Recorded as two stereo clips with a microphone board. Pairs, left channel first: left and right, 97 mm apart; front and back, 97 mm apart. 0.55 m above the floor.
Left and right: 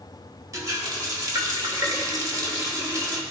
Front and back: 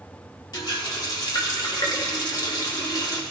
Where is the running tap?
40° right, 1.1 m.